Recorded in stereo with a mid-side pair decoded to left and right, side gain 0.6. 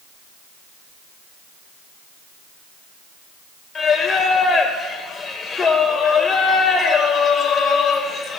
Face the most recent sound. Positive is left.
turn(degrees=30)